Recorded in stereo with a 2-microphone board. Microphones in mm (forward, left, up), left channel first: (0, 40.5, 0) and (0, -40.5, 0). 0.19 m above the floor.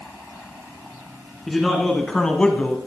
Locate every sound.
1.5 s a man speaking: 5° left (ahead or behind), 1.9 m; by 2.8 s 15° left (ahead or behind), 1.1 m